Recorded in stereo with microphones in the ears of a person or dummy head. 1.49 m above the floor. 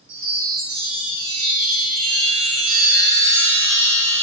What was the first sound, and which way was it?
A chime, 65° right (ahead or behind).